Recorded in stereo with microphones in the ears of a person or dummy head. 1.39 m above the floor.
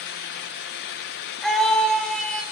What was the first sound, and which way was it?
A scream, centre (ahead or behind).